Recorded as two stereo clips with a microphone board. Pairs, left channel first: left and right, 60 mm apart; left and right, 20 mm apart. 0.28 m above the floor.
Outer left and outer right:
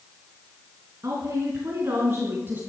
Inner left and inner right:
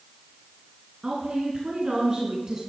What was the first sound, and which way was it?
A woman speaking, 60° right (ahead or behind).